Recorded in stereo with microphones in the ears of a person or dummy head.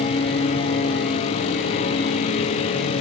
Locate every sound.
0.0 s a lawn mower: 35° left (ahead or behind)